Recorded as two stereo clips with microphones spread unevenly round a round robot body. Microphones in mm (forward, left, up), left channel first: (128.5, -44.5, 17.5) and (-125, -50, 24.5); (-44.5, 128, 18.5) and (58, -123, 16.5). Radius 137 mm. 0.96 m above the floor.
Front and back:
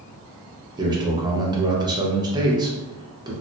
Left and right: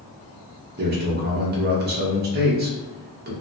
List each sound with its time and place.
0.8 s a man speaking: 110° right, 0.8 m